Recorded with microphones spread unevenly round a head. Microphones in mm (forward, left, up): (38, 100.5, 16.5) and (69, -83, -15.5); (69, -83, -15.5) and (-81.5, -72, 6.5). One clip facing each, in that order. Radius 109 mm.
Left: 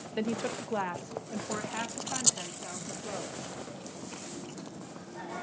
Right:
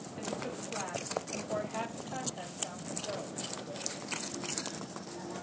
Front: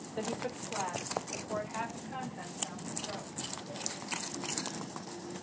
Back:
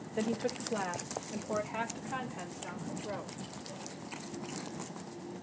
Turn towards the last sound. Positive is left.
turn(degrees=145)